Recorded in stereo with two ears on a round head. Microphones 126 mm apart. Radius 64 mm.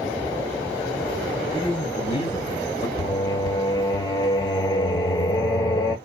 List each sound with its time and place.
1.5 s a man speaking: 40° left (ahead or behind), 2.5 m; by 2.9 s 25° left (ahead or behind), 1.2 m
3.0 s singing: 25° left (ahead or behind), 1.0 m